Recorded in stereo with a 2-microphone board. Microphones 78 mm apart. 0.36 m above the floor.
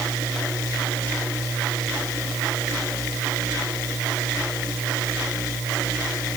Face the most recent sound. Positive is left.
No sound to turn to.